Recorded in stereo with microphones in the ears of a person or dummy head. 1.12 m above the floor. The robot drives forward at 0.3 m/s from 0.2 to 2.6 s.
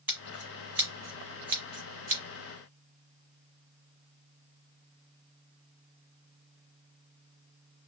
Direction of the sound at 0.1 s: 10° right (ahead or behind).